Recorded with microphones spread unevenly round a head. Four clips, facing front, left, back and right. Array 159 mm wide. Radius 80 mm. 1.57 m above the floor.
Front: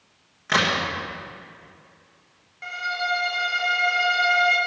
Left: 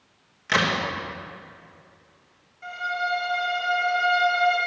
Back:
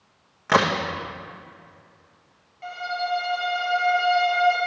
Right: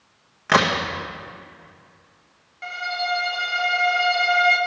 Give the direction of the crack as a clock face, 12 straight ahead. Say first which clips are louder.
Right 5 dB, back 3 dB; 4 o'clock.